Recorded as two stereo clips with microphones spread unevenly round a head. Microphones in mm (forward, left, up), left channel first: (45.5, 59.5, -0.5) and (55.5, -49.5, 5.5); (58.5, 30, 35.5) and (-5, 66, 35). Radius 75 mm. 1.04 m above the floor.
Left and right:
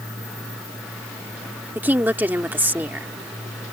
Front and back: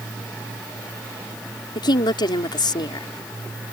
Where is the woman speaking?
10° right.